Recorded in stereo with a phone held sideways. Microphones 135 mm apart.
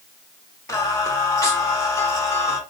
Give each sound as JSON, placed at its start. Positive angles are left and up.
{"t": 0.7, "sound": "singing", "side_deg": 25, "distance_m": 1.0}